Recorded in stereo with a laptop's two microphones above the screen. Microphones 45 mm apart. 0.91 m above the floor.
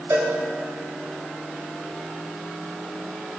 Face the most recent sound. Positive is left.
turn(degrees=-85)